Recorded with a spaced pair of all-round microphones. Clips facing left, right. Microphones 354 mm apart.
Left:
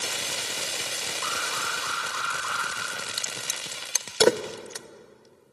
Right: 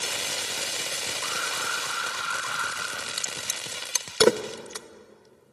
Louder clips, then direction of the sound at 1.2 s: Even; 20° left (ahead or behind).